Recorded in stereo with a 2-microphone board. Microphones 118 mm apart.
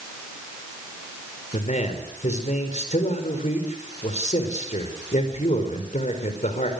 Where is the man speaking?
85° left, 4.5 m.